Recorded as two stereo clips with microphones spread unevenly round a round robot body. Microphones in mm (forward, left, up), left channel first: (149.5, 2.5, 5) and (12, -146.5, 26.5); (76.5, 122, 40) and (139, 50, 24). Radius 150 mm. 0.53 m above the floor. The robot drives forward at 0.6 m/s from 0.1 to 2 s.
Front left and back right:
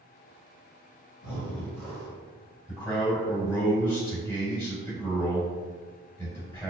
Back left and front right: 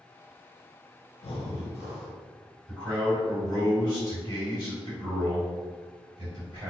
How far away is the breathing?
About 0.6 m.